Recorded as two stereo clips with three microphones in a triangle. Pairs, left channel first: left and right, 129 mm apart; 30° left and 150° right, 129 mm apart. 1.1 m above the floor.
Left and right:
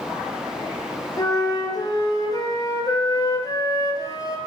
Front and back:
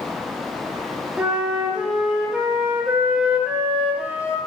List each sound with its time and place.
1.2 s a flute: 130° left, 0.9 m